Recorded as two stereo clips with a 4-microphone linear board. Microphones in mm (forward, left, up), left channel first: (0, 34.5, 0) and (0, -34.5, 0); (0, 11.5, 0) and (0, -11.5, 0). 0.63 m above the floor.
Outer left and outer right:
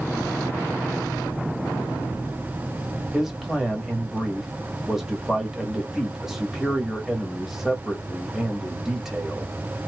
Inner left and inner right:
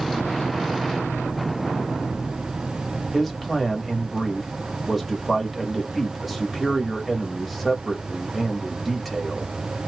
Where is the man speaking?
5° right (ahead or behind), 1.3 m.